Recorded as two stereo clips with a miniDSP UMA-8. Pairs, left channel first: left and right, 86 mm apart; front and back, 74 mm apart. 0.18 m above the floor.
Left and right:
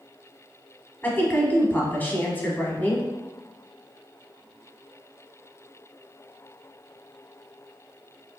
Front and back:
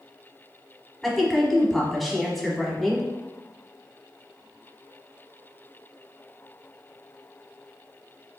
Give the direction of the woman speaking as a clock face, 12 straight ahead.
9 o'clock.